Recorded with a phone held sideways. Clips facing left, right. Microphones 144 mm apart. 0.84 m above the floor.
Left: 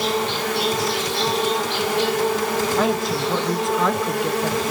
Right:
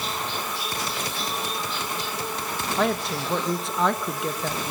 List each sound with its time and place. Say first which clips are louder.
0.0 s an insect: left 9 dB; 65° left (ahead or behind), 0.9 m
2.8 s a woman speaking: left 4 dB; centre (ahead or behind), 1.0 m